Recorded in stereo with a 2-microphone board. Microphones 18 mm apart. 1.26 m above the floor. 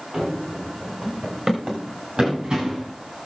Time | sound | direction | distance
0.1 | running footsteps | 35° right (ahead or behind) | 6 m